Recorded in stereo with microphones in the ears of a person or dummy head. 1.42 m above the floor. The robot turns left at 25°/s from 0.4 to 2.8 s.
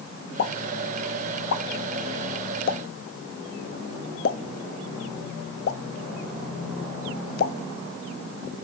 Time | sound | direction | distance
0.4 | a pop | 50° left (ahead or behind) | 1.3 m